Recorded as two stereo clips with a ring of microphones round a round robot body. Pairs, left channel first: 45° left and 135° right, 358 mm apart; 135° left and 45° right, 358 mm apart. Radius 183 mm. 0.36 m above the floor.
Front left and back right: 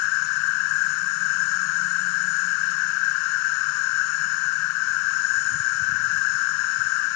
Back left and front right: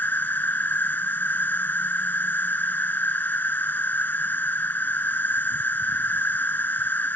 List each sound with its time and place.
0.0 s an insect: 50° left